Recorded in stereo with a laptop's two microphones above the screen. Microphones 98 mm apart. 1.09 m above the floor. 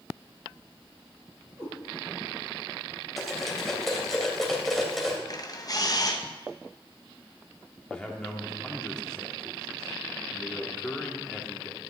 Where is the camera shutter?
40° left (ahead or behind), 0.7 m.